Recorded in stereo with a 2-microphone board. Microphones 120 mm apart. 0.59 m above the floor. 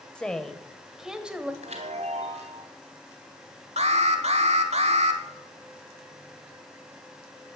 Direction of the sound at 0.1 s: 10° left (ahead or behind).